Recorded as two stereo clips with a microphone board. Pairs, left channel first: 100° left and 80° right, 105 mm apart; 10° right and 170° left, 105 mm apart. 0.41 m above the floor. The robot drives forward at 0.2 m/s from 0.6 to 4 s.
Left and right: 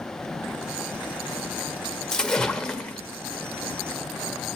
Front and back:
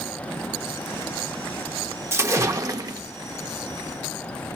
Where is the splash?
170° left, 0.5 m; by 3.0 s 175° left, 0.6 m.